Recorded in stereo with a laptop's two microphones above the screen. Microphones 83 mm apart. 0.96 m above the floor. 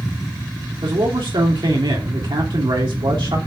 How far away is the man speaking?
About 3 m.